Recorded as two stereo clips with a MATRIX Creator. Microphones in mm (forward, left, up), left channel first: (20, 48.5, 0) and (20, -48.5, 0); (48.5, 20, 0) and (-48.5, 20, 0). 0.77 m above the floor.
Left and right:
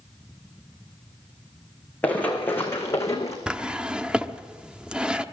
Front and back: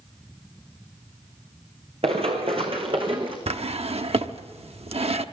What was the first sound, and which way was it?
Running footsteps, 165° left.